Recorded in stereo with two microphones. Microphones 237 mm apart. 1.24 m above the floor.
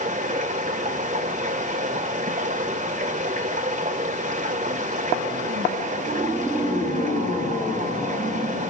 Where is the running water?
30° right (ahead or behind), 1.8 m.